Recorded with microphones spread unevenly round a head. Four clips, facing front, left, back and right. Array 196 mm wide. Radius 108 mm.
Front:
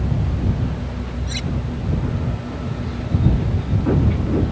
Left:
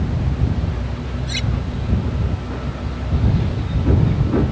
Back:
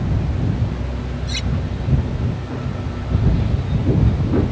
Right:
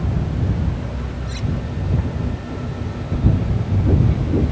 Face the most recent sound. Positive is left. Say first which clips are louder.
# right 1 dB, even
turn(degrees=80)